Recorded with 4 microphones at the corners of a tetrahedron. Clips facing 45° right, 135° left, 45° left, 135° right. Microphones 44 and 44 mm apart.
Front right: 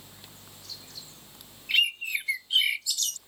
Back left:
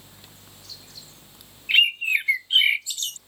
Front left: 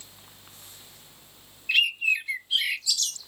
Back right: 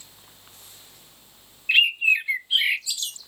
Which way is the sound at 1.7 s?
170° left.